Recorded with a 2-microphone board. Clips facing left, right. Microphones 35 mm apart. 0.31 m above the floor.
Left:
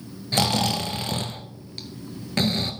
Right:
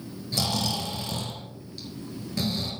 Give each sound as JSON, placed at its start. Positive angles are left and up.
{"t": 0.3, "sound": "snoring", "side_deg": 50, "distance_m": 1.1}